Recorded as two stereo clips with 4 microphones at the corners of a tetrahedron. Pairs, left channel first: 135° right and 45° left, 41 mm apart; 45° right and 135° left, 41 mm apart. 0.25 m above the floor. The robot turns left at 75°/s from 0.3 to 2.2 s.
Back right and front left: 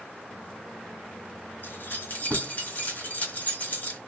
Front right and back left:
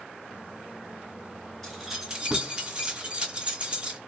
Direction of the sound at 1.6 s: 120° right.